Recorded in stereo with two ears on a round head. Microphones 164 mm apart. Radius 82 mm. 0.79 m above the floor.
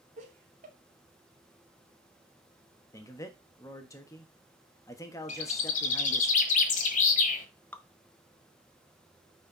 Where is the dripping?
10° left (ahead or behind), 0.7 m.